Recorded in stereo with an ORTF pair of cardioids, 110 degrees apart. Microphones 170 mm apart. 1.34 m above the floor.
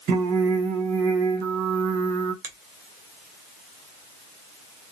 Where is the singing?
65° right, 1.1 m.